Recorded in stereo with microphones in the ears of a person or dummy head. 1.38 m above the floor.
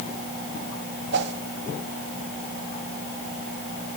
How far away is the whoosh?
About 2.5 m.